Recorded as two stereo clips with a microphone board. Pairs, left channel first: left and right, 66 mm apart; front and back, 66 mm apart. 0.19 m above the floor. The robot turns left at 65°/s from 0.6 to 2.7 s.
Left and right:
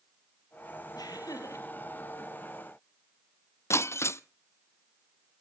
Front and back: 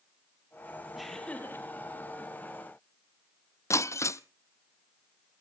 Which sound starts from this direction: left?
Laughter, at 0.9 s.